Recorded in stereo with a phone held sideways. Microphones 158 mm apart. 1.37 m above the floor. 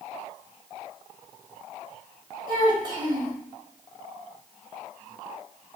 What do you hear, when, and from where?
2.5 s a child speaking: 30° right (ahead or behind), 1.7 m